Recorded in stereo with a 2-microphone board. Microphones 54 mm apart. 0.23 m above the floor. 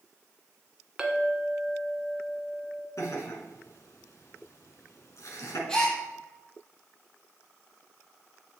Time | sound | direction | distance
1.0 | a clink | 15° right (ahead or behind) | 1.2 m
3.0 | laughter | 60° left (ahead or behind) | 2 m
5.7 | a gasp | 15° left (ahead or behind) | 3.5 m